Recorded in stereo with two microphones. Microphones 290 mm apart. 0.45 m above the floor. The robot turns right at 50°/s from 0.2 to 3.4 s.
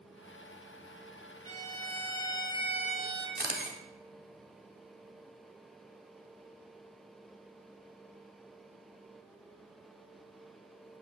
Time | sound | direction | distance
1.4 | a violin | 110° right | 1.2 m
3.4 | a camera shutter | 35° right (ahead or behind) | 1.1 m